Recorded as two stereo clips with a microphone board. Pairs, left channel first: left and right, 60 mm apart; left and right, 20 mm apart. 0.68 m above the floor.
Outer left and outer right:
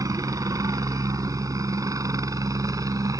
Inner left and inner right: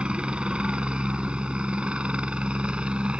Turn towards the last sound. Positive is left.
turn(degrees=-70)  # may be behind; listen again after turning